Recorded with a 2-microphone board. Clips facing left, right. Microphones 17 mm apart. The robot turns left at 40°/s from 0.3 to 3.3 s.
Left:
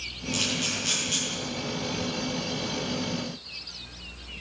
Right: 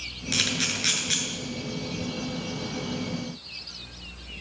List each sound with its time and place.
0.3 s a camera shutter: 80° right, 8 m; by 1.2 s 60° right (ahead or behind), 8 m